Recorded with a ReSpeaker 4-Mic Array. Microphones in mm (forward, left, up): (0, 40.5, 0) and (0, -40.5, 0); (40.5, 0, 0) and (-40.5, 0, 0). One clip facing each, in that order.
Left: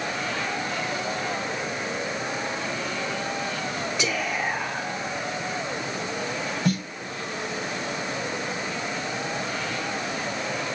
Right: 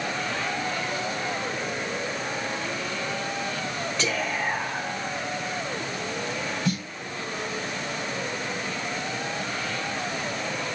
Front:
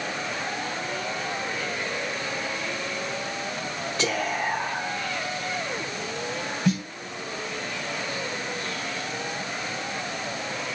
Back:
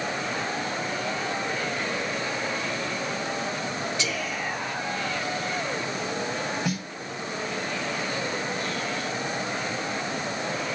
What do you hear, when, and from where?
4.0 s whispering: 10° left, 0.8 m
6.7 s a snare drum: 100° left, 2 m